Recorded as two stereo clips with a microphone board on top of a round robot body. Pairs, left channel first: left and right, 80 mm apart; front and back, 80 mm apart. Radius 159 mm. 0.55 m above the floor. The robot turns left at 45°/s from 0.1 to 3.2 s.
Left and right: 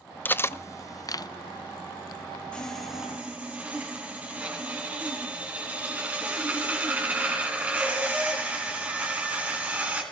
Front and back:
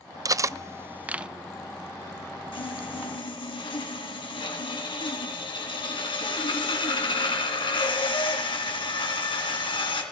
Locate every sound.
0.2 s cutlery clinking: 150° left, 0.6 m; by 1.3 s 105° left, 0.6 m
2.5 s sawing: 15° left, 2.5 m; by 10.0 s 20° right, 2.5 m